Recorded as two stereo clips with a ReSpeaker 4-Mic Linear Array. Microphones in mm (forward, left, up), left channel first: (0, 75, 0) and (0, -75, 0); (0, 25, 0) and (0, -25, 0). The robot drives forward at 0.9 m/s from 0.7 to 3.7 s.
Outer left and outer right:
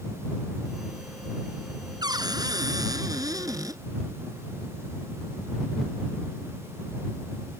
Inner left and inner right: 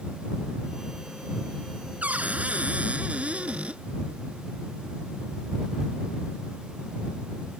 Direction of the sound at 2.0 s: 25° right (ahead or behind).